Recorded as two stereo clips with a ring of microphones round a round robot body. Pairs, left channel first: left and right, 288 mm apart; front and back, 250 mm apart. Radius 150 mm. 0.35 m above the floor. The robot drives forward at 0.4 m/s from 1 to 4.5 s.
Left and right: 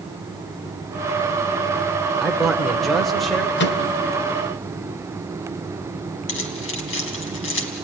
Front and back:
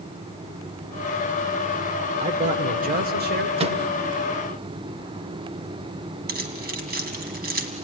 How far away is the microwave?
About 1.0 m.